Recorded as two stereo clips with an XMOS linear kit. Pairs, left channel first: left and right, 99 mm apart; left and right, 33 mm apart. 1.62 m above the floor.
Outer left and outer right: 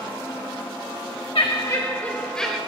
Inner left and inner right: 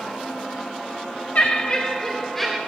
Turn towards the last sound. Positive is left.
turn(degrees=5)  # may be behind; listen again after turning